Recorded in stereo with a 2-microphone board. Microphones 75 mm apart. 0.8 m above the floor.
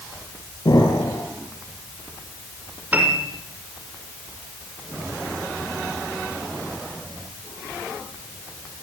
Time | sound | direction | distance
0.7 | an explosion | 65° left (ahead or behind) | 6 m
2.9 | a piano | 20° right (ahead or behind) | 6 m